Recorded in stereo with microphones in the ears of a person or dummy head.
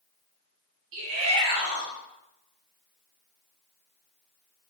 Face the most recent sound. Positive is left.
turn(degrees=-65)  # may be behind; listen again after turning